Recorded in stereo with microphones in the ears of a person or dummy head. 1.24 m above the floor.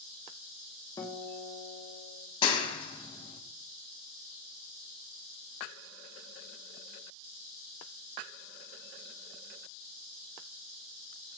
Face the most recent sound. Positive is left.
turn(degrees=30)  # may be behind; listen again after turning